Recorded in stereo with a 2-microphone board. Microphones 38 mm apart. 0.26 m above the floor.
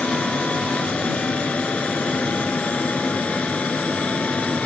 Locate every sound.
0.0 s an aircraft: 40° left (ahead or behind)